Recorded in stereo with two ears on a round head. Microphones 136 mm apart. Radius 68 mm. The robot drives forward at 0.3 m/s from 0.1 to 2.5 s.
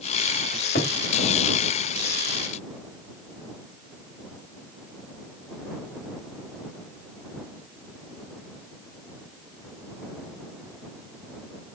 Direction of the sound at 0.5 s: 70° left (ahead or behind).